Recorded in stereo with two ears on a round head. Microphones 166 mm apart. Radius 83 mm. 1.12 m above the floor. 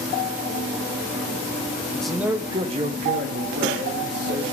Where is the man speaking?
10° left (ahead or behind), 0.6 m; by 4.4 s 65° right (ahead or behind), 1.5 m.